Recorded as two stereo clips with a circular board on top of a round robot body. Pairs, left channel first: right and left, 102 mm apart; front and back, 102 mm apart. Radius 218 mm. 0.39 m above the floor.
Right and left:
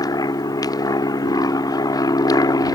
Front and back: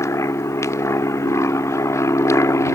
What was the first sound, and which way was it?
An aircraft, 50° right.